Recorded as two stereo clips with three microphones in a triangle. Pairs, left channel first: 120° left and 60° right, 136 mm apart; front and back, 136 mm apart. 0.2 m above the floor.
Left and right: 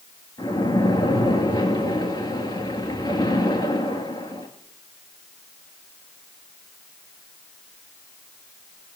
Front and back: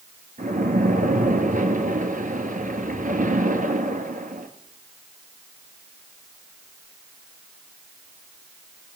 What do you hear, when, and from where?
0.4 s a splash: 175° left, 1.7 m